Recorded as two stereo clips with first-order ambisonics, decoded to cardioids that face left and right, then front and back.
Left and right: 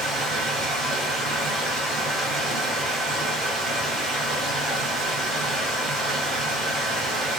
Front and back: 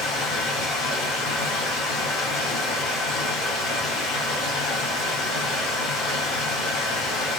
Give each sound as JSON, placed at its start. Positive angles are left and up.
{"t": 0.0, "sound": "running water", "azimuth_deg": -15, "distance_m": 1.4}